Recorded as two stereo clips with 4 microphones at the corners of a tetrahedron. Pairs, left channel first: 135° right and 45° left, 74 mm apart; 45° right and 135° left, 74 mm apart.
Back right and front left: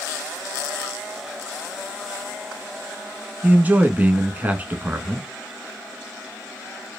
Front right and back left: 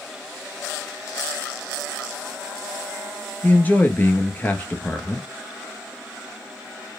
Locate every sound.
3.4 s a man speaking: straight ahead, 1.2 m